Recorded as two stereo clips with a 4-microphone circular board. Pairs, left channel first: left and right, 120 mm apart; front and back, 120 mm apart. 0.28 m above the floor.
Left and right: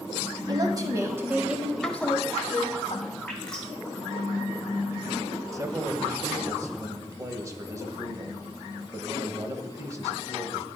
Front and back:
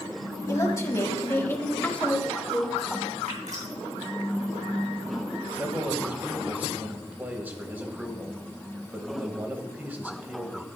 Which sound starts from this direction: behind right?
A man speaking, at 5.5 s.